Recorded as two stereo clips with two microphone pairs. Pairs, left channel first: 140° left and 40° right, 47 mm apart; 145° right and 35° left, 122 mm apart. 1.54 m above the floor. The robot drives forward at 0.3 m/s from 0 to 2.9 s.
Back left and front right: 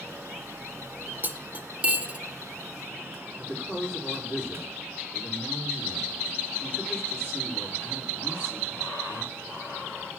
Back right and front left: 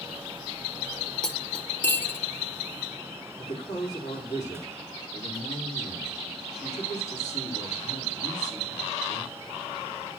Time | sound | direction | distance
1.2 | cutlery clinking | 60° right | 0.9 m
3.4 | a woman speaking | 160° right | 5 m